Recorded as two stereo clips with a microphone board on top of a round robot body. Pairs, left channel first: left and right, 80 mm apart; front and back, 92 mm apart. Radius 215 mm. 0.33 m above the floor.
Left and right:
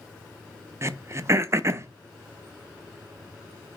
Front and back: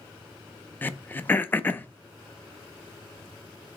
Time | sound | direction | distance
0.8 | throat clearing | 60° right | 0.6 m